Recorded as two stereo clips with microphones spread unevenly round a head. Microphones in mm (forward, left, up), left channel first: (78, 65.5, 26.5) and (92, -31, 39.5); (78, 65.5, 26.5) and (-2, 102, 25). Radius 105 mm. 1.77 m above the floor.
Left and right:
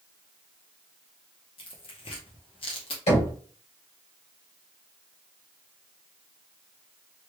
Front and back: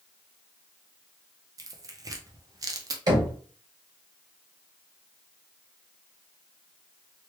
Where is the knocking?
115° left, 2 m.